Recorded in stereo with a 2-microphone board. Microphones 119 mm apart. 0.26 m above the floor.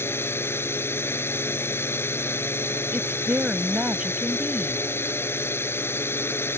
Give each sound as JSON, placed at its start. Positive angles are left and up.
{"t": 0.0, "sound": "a drone", "side_deg": 20}
{"t": 2.9, "sound": "a woman speaking", "side_deg": -10}